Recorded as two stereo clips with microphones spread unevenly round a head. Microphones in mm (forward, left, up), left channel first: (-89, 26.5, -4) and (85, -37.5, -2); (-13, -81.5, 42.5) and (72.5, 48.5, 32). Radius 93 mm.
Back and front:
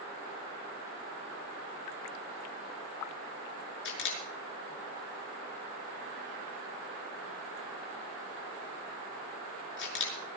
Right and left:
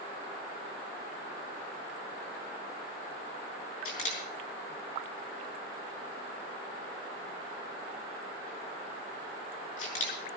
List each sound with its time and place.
3.9 s a camera shutter: 175° right, 5.5 m